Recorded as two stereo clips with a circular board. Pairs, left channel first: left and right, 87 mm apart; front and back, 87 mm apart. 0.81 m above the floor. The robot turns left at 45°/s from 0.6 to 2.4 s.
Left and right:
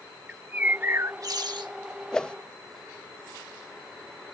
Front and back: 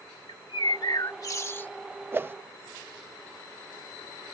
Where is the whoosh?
160° left; by 2.4 s 150° left.